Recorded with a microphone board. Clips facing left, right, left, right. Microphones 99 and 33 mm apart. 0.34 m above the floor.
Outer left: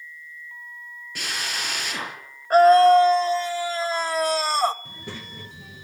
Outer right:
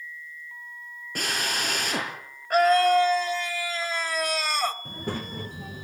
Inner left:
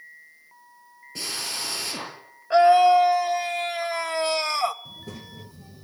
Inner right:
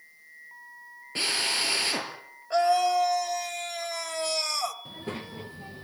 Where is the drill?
45° right (ahead or behind), 8 m.